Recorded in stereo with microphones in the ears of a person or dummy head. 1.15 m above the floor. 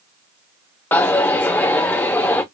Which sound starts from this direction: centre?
A dropped coin, at 0.9 s.